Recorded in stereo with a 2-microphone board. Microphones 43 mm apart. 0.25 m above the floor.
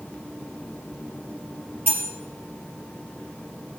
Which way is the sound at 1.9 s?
50° right (ahead or behind).